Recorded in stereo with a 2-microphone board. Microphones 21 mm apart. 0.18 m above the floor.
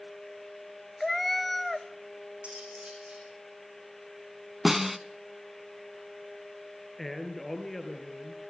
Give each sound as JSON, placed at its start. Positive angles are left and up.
{"t": 1.0, "sound": "a cat meowing", "side_deg": 10, "distance_m": 0.8}
{"t": 2.4, "sound": "cutlery clinking", "side_deg": -80, "distance_m": 7.0}
{"t": 4.7, "sound": "a snare drum", "side_deg": -10, "distance_m": 1.0}
{"t": 7.0, "sound": "a man speaking", "side_deg": 15, "distance_m": 4.0}